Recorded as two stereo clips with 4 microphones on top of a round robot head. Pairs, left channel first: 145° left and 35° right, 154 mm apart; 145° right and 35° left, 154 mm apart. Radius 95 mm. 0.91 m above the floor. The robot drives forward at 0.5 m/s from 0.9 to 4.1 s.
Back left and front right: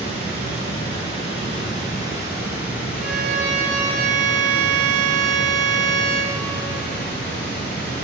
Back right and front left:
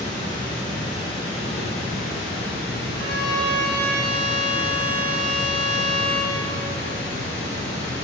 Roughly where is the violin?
Ahead.